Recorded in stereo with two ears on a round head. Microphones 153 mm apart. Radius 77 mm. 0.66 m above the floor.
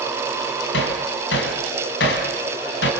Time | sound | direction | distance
0.7 | hammering | 80° left | 4 m